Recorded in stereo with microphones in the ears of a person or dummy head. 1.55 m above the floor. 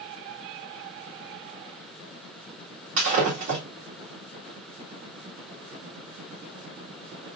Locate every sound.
3.0 s breaking glass: 40° right (ahead or behind), 1.9 m